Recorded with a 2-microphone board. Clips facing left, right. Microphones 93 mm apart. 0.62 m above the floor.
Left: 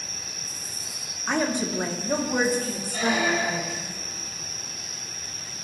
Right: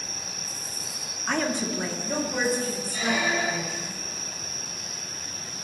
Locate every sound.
1.3 s a woman speaking: 5° left (ahead or behind), 1.1 m; by 3.9 s 65° left (ahead or behind), 2.5 m
2.9 s a squeak: 55° left (ahead or behind), 2.5 m